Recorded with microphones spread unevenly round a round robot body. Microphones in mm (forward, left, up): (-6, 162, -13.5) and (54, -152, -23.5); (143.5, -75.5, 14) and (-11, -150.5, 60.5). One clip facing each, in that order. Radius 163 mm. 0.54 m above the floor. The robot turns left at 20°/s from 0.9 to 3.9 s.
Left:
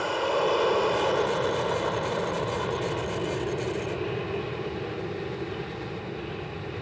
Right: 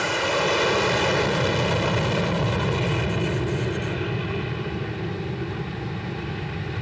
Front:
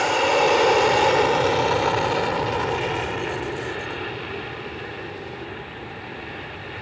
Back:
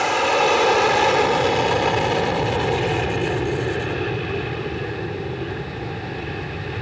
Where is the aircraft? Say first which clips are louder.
Right 1 dB, even; 55° right; by 6.8 s 115° right.